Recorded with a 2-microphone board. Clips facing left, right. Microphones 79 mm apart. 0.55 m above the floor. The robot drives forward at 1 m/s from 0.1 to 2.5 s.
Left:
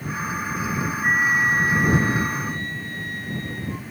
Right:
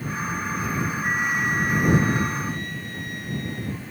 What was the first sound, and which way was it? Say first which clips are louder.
A flute: left 6 dB; 50° left (ahead or behind).